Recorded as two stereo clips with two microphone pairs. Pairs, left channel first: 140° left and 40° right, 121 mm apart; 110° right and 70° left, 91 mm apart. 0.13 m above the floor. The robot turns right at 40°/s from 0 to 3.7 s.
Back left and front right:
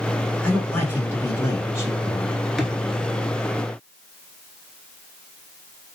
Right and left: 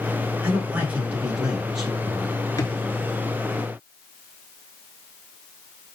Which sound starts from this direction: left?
A man speaking, at 0.4 s.